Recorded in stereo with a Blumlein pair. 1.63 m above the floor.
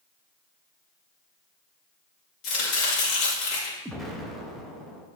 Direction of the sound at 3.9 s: 10° right.